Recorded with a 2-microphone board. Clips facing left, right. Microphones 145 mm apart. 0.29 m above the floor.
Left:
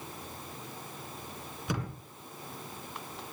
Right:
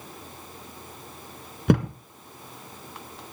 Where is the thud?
65° right (ahead or behind), 1.3 m.